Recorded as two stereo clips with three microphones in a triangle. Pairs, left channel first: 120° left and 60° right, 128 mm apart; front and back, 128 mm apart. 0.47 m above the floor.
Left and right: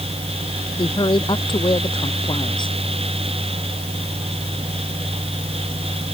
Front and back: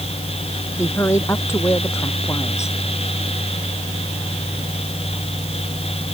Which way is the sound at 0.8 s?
70° left.